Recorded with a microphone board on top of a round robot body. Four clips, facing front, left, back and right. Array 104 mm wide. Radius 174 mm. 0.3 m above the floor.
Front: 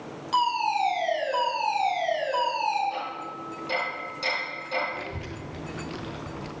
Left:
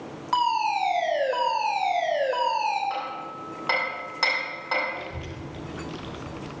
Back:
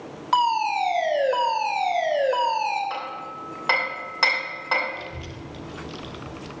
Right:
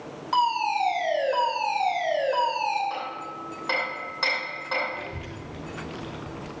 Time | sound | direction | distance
0.3 | a fire alarm | 165° left | 3 m
2.9 | hammering | 165° left | 2.5 m
4.9 | a child speaking | 20° right | 0.8 m